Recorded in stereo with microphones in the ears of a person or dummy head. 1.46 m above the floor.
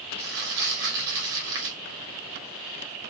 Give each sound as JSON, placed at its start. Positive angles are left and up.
{"t": 0.2, "sound": "crumpling", "side_deg": -15, "distance_m": 1.0}